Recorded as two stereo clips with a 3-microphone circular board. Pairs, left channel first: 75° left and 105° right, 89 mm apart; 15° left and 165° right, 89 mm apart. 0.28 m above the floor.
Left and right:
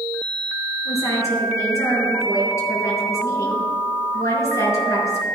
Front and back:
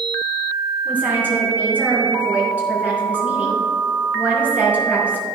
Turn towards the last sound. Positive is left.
turn(degrees=125)